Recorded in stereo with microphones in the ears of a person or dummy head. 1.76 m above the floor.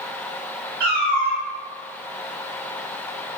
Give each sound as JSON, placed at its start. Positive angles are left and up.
{"t": 0.8, "sound": "a cat meowing", "side_deg": -15, "distance_m": 1.8}